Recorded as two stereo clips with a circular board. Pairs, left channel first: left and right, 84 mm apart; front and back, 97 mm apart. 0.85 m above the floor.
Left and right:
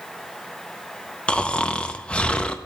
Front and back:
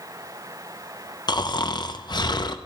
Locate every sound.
1.3 s snoring: 15° left, 0.6 m